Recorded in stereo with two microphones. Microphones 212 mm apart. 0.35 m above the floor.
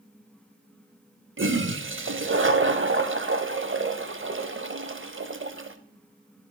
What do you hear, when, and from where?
1.4 s a toilet flushing: 70° right (ahead or behind), 0.6 m